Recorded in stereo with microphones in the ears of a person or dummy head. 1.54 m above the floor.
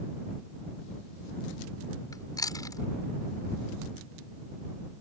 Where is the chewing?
20° left (ahead or behind).